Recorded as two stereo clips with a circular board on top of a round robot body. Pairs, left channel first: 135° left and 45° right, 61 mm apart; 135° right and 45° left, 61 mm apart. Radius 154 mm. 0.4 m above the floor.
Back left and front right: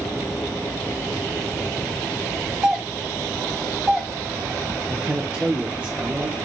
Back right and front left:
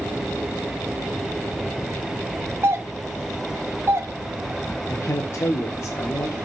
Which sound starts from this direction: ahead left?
A doorbell, at 2.6 s.